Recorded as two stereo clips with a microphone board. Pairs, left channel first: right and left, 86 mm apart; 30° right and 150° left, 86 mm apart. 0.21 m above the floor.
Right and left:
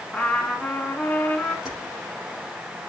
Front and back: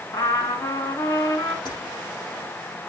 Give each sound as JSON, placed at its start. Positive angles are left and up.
{"t": 0.1, "sound": "a trumpet", "azimuth_deg": -15, "distance_m": 1.6}
{"t": 1.6, "sound": "keys jangling", "azimuth_deg": 5, "distance_m": 5.0}